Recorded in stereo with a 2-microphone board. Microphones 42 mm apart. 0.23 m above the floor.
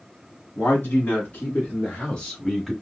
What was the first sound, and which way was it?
A man speaking, 55° left (ahead or behind).